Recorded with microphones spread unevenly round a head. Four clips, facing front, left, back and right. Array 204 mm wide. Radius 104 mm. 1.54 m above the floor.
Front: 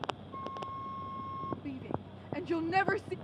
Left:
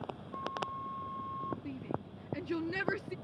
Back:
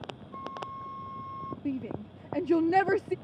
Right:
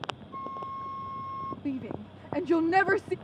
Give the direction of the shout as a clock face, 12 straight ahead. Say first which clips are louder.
Right 6 dB, back 5 dB; 5 o'clock.